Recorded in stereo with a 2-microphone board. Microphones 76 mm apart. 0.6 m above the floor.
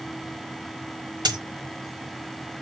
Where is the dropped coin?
80° right, 1.2 m.